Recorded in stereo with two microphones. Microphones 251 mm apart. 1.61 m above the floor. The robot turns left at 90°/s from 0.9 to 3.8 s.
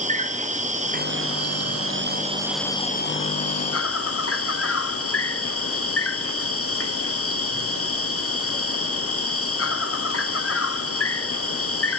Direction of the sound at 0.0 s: 30° right.